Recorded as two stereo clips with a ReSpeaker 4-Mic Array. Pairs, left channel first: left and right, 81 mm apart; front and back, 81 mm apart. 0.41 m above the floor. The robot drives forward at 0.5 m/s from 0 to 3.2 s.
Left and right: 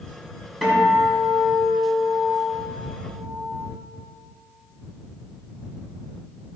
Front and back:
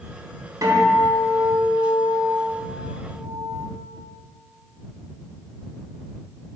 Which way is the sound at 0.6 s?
175° left.